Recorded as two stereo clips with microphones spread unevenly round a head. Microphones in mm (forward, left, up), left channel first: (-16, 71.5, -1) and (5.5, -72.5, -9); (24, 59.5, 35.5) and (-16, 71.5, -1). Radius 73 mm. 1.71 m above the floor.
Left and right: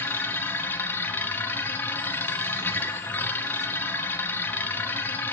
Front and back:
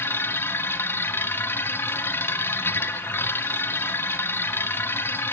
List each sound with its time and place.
0.0 s a machine running: 20° left, 1.1 m